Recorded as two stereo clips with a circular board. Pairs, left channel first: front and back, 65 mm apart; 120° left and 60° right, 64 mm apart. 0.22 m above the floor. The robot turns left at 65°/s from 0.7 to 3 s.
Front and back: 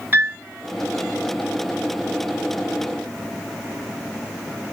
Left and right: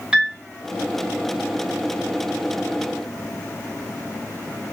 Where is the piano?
130° right, 1.1 m.